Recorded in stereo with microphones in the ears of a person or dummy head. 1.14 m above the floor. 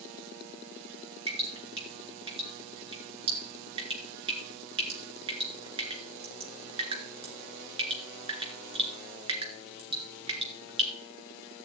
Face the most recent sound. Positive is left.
turn(degrees=-35)  # may be behind; listen again after turning